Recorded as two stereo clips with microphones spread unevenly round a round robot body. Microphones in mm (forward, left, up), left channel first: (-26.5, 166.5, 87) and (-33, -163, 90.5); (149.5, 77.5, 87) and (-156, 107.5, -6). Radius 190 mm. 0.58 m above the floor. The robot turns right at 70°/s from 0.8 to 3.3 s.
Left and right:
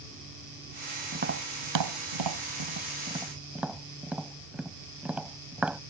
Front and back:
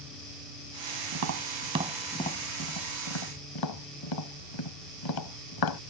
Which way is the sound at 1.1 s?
155° right.